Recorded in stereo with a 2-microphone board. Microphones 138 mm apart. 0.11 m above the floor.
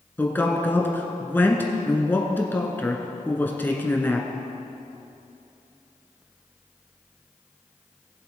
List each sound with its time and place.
0.2 s a man speaking: 15° left (ahead or behind), 1.3 m